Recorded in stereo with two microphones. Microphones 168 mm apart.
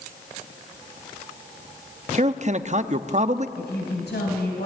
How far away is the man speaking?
About 0.8 m.